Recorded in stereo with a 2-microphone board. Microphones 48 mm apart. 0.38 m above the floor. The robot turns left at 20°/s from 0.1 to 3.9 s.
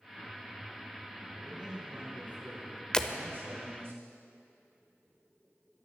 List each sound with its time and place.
1.4 s a man speaking: 20° right, 4 m; by 3.9 s 70° right, 4 m
2.9 s breaking glass: 15° left (ahead or behind), 0.8 m; by 3.1 s 20° left (ahead or behind), 0.8 m